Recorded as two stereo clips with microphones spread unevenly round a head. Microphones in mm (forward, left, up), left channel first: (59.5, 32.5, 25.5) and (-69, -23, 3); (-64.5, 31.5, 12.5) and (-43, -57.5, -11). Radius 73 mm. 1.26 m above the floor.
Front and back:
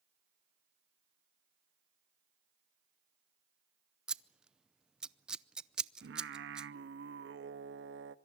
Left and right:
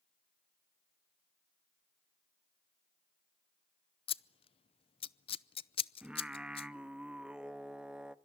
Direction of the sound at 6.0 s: 160° right.